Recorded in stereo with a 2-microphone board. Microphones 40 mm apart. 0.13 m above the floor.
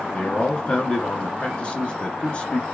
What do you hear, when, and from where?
0.1 s a man speaking: 25° left (ahead or behind), 2 m